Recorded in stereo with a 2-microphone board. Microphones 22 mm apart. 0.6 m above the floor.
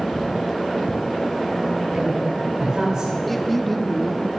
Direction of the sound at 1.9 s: 25° right (ahead or behind).